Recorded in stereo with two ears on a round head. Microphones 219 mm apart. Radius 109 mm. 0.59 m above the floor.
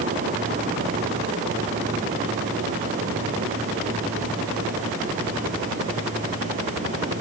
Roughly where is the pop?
No pop in this recording.